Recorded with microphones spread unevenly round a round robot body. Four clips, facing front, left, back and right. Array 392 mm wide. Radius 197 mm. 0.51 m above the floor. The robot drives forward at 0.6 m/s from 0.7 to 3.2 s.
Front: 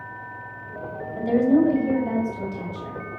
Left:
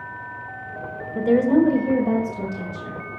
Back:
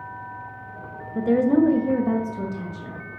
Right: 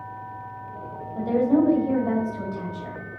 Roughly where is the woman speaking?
Behind left.